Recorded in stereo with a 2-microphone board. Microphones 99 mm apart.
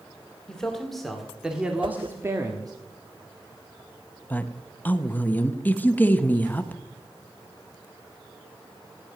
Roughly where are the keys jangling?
No keys jangling in this recording.